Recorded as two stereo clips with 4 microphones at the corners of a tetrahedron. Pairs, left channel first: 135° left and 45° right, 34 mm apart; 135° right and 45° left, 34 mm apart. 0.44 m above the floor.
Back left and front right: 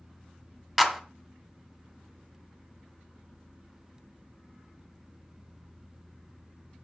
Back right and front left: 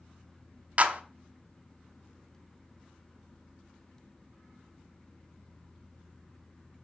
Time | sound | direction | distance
0.8 | a clap | 40° left | 1.2 m